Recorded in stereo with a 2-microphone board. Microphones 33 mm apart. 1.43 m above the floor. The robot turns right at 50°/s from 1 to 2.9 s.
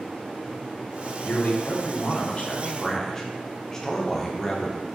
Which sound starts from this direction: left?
A man speaking, at 1.2 s.